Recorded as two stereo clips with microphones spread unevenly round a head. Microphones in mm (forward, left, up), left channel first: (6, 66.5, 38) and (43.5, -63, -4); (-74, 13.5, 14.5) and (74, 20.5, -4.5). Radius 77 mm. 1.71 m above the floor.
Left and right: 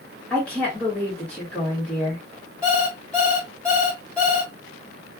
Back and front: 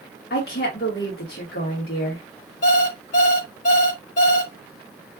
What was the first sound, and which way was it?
A woman speaking, straight behind.